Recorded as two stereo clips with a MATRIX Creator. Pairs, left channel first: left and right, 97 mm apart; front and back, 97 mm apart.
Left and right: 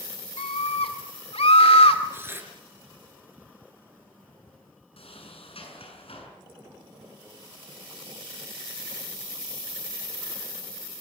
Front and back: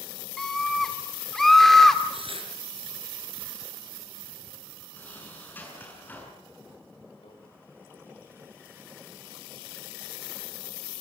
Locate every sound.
0.4 s a scream: 90° left, 2 m
2.1 s tearing paper: 155° right, 4 m
5.0 s a sliding door: 70° left, 6.5 m
7.2 s a microwave: 10° right, 4.5 m